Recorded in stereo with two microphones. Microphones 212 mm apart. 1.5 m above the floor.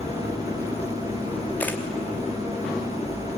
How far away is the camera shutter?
About 2.5 m.